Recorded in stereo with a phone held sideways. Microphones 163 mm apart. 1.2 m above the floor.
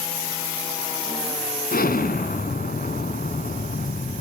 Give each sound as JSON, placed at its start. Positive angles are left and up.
{"t": 1.7, "sound": "an explosion", "side_deg": 65, "distance_m": 2.5}